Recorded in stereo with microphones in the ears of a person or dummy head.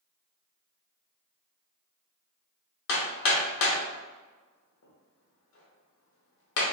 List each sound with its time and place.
2.9 s hammering: 70° left (ahead or behind), 0.7 m